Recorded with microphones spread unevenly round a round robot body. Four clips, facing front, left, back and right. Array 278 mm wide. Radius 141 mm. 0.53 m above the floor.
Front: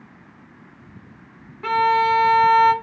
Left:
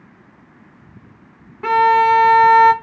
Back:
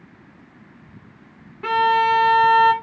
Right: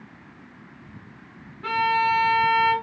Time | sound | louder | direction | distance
1.6 | a violin | left 9 dB, even | 90° left | 0.5 m